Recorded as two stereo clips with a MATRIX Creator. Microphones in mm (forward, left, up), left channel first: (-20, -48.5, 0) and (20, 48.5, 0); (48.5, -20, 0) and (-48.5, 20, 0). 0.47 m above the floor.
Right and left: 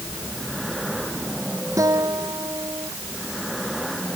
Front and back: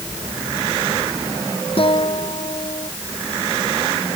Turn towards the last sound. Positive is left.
turn(degrees=10)